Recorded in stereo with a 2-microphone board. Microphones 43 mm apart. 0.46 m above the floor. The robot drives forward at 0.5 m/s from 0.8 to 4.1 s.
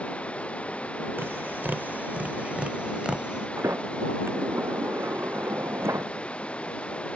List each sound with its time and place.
0.0 s running water: 30° left (ahead or behind); by 7.2 s 25° left (ahead or behind)
1.2 s tapping: 60° right (ahead or behind); by 3.5 s 25° right (ahead or behind)
3.6 s a sliding door: 80° right